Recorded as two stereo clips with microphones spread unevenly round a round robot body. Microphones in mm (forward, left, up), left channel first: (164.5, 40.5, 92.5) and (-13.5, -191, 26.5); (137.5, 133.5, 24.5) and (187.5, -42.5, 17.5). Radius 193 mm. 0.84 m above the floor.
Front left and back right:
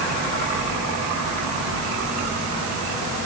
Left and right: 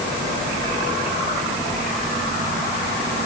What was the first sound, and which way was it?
Only background noise.